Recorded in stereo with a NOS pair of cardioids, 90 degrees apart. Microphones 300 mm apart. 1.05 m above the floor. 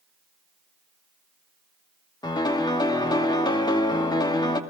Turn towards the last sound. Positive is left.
turn(degrees=15)